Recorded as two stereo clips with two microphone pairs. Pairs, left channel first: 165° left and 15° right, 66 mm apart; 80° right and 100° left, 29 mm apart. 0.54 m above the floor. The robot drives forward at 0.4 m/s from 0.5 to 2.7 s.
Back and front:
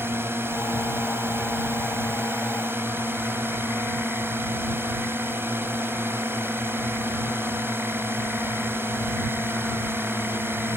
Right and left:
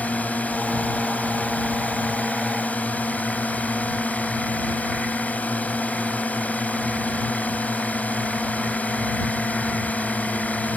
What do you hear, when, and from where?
0.0 s a drone: 65° right; by 10.8 s 70° right